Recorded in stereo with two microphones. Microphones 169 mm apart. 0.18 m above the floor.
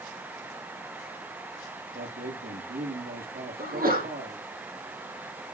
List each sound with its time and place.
1.9 s a man speaking: 65° right (ahead or behind), 4.5 m
3.6 s a sneeze: 55° right (ahead or behind), 6.5 m